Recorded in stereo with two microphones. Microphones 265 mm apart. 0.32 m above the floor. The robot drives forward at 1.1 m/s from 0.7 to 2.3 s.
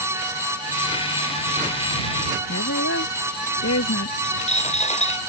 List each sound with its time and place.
2.5 s a woman speaking: 70° left (ahead or behind)
4.2 s a dropped coin: 25° left (ahead or behind)